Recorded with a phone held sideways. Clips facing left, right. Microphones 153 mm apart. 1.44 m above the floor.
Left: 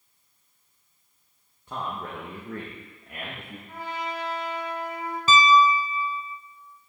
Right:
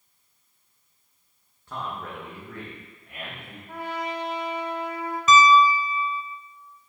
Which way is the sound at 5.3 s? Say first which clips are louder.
Right 2 dB; 30° left (ahead or behind).